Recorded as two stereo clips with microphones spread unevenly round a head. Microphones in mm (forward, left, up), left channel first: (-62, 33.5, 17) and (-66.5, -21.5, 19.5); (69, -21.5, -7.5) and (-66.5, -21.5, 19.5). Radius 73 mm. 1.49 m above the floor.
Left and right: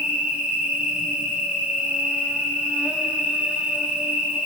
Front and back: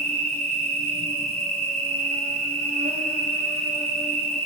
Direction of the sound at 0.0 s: 155° right.